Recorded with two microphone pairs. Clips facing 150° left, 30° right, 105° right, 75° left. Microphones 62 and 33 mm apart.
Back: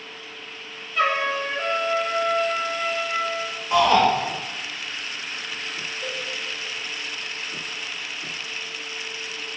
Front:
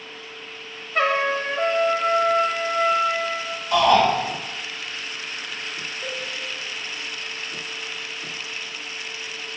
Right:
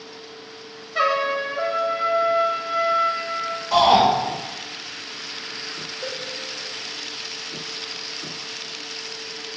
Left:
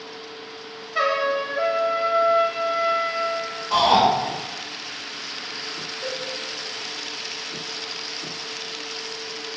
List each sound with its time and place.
0.9 s a trumpet: 5° right, 1.1 m
3.7 s a shout: 135° left, 1.6 m
6.0 s a cowbell: 90° right, 1.0 m